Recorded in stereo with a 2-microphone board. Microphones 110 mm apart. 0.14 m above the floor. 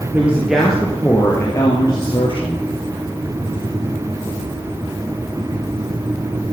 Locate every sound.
0.1 s a woman speaking: 15° right (ahead or behind), 2.5 m; by 2.6 s 50° left (ahead or behind), 3 m